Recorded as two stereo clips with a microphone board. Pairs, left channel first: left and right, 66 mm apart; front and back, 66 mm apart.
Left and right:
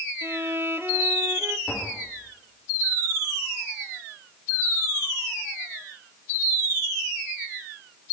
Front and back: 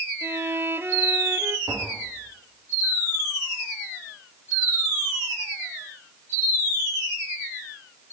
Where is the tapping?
175° right, 7.5 m.